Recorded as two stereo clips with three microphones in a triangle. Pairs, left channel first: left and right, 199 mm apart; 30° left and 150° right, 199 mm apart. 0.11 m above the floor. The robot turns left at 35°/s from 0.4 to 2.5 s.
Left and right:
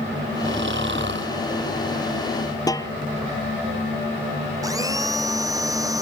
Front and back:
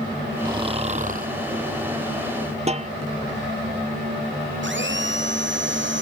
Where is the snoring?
80° right; by 1.3 s 110° right.